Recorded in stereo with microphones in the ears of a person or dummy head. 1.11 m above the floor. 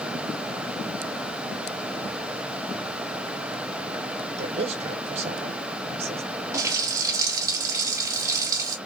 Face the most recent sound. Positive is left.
turn(degrees=-20)  # may be behind; listen again after turning